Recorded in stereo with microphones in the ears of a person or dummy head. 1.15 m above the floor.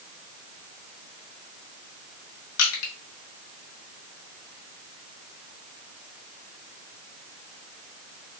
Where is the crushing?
75° left (ahead or behind), 1.1 m.